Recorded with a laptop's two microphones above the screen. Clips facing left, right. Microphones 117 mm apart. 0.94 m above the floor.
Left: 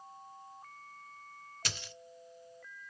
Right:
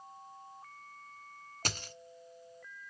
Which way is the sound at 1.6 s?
45° right (ahead or behind).